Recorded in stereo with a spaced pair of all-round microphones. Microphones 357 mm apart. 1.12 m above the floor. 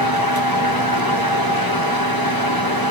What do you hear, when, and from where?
0.0 s a fan: 75° left (ahead or behind), 1.4 m